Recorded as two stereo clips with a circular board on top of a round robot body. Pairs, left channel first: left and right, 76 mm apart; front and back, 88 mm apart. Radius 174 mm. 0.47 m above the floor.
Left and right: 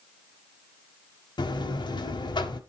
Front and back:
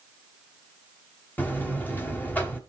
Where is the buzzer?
70° left, 1.6 m.